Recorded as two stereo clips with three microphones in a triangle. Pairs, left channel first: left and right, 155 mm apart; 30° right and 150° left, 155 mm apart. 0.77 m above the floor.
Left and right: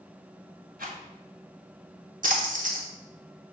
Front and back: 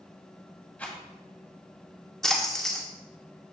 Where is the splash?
115° right, 1.4 m.